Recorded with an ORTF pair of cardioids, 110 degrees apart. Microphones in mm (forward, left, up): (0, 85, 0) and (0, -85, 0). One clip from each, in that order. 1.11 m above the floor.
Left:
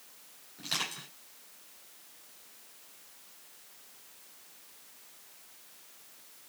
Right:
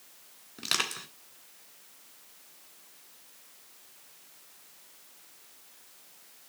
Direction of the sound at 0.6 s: 65° right.